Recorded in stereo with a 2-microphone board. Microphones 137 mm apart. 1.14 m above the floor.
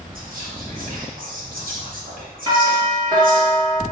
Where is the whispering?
75° right (ahead or behind), 1.6 m.